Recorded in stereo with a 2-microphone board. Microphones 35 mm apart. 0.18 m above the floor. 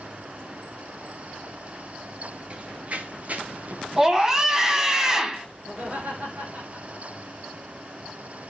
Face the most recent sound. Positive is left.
turn(degrees=-45)  # may be behind; listen again after turning